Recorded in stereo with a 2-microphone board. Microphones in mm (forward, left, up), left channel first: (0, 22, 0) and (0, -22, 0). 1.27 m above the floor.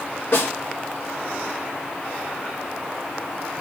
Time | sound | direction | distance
0.3 | a snare drum | 50° left (ahead or behind) | 4 m